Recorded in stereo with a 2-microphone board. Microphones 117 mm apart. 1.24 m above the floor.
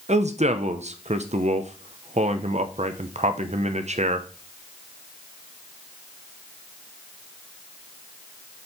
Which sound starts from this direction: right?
A man speaking, at 0.1 s.